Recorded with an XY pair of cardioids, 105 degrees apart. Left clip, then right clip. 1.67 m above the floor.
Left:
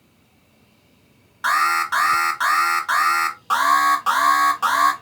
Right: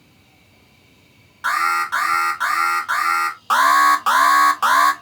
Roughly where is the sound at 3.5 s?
Ahead right.